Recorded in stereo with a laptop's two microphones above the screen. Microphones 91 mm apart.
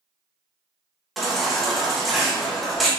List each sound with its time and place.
1.2 s a baby crying: centre (ahead or behind), 0.6 m